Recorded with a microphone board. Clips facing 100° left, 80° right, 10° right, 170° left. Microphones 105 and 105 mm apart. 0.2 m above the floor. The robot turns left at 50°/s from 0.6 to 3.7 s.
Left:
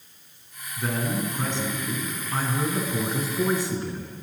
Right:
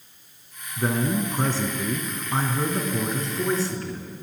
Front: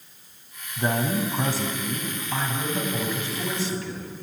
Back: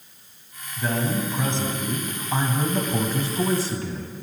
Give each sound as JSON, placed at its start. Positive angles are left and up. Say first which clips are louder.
{"t": 0.8, "sound": "a man speaking", "louder": "right 4 dB, front 1 dB", "azimuth_deg": -50, "distance_m": 1.4}